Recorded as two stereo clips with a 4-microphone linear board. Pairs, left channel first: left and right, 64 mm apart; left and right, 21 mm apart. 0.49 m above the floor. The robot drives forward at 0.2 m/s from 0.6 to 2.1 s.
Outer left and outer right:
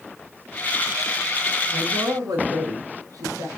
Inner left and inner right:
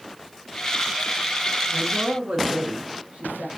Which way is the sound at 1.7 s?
70° right (ahead or behind).